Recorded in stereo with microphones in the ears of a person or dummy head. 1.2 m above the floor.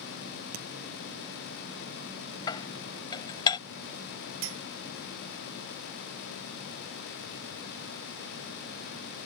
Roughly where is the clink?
Right.